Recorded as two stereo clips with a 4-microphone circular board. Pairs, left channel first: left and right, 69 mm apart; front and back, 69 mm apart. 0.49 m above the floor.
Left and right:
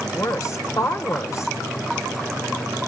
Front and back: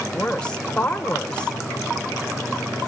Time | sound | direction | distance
0.1 | a woman speaking | 70° left | 1.7 m